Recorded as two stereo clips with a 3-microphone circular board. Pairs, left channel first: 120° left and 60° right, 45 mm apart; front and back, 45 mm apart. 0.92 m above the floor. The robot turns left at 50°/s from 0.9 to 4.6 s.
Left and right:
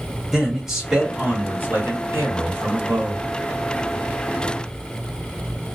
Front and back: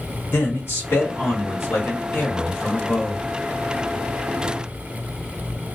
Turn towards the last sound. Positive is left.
turn(degrees=-165)